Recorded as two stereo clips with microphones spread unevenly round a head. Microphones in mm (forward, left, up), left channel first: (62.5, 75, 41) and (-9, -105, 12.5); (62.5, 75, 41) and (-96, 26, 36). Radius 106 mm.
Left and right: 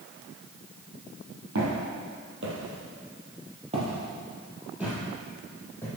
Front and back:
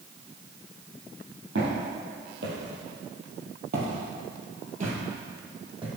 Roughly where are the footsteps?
Behind right.